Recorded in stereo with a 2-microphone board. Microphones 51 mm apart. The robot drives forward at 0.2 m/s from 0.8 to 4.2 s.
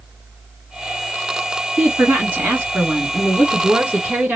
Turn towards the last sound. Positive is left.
turn(degrees=-20)  # may be behind; listen again after turning